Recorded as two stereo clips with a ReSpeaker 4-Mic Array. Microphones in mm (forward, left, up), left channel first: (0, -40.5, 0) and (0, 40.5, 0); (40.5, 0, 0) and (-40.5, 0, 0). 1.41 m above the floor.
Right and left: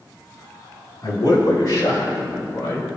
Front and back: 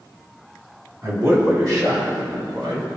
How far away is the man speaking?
About 3.5 m.